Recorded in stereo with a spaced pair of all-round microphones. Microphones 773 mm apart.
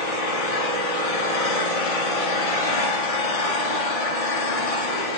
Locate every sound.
0.0 s an engine running: 50° left (ahead or behind), 0.7 m